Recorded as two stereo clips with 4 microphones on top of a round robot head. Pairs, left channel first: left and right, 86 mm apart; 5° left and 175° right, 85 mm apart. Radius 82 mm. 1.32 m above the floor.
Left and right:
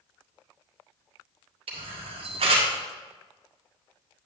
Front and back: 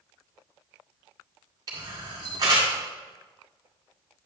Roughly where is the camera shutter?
Behind right.